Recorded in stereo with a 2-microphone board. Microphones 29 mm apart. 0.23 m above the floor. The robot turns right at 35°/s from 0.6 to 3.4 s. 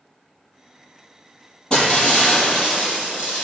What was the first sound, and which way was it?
Breaking glass, 30° left.